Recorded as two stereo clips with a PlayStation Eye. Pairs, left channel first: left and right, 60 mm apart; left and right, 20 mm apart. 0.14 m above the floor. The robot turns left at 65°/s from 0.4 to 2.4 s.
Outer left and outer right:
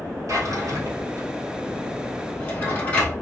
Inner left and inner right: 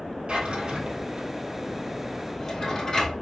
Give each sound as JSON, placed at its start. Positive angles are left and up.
{"t": 0.3, "sound": "a drawer", "side_deg": -65, "distance_m": 1.4}